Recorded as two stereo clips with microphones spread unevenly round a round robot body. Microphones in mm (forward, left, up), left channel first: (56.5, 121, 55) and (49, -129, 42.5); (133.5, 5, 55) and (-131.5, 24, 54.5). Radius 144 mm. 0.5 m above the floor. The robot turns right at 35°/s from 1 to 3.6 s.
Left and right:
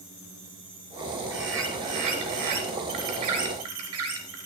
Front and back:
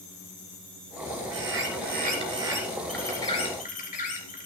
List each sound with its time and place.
1.3 s a bird: 145° right, 3.5 m; by 4.5 s 65° right, 3.5 m